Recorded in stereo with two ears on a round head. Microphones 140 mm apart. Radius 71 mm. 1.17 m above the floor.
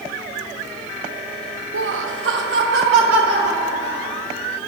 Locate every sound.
1.7 s laughter: 80° right, 0.6 m; by 4.2 s 85° right, 3.5 m